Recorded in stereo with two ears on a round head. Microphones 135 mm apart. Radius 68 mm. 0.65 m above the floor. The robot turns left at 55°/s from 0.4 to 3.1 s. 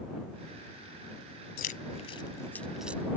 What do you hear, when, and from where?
1.6 s keys jangling: 65° left (ahead or behind); by 3.0 s 15° right (ahead or behind)